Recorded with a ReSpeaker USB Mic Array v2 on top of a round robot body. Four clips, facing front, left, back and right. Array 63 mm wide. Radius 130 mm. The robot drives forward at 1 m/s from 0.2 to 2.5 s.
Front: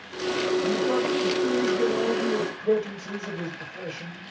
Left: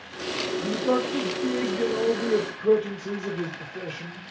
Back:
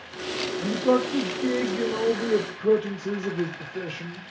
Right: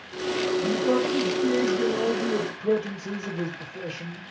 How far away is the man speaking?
About 1.6 m.